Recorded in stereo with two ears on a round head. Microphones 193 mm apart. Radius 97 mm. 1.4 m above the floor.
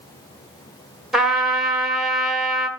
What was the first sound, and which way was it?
A trumpet, centre (ahead or behind).